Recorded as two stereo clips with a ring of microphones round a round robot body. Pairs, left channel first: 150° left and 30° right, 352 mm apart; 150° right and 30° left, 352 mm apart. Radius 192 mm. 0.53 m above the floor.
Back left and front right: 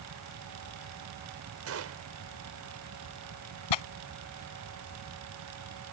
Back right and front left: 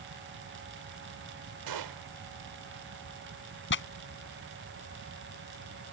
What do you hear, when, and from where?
1.7 s a gunshot: 15° left
3.7 s tearing paper: 150° left